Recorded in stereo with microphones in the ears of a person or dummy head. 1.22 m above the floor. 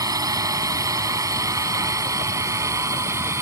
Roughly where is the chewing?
No chewing in this recording.